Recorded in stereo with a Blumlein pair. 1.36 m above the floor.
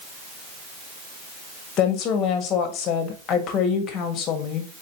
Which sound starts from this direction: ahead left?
A woman speaking, at 1.8 s.